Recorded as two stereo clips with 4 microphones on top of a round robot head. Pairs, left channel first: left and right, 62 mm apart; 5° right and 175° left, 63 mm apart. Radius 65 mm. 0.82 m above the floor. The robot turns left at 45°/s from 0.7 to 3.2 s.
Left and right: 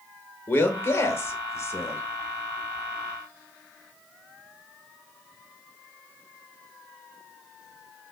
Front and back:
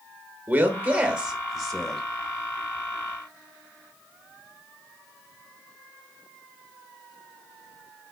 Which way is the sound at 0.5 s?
125° left.